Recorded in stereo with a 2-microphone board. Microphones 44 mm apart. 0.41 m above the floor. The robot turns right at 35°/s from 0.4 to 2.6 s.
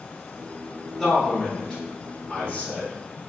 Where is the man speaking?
5° left (ahead or behind), 0.9 m; by 2.9 s 25° left (ahead or behind), 0.9 m.